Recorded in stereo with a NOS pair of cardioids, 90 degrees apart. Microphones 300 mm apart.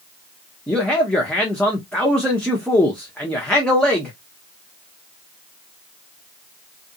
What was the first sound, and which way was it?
A man speaking, 5° left.